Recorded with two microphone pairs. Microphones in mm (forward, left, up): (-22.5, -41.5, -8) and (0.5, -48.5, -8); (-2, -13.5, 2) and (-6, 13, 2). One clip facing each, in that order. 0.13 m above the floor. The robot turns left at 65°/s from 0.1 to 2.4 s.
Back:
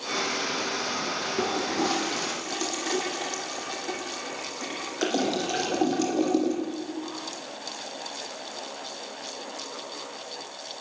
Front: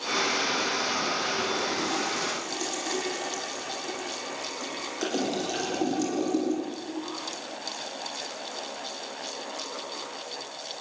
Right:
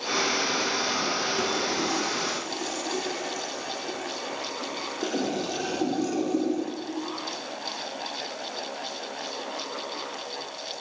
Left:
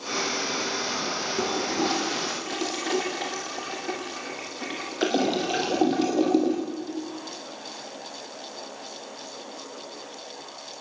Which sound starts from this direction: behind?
A toilet flushing, at 1.4 s.